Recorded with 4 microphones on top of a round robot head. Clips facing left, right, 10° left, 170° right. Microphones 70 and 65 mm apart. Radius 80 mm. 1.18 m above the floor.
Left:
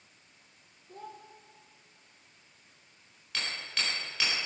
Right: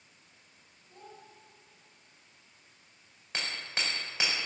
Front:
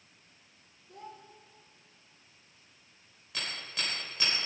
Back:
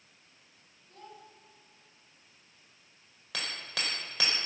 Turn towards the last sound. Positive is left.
turn(degrees=-160)